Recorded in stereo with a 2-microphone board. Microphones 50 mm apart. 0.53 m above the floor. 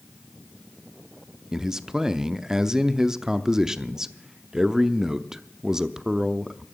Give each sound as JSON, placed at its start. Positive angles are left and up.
{"t": 1.5, "sound": "a man speaking", "side_deg": -10, "distance_m": 0.6}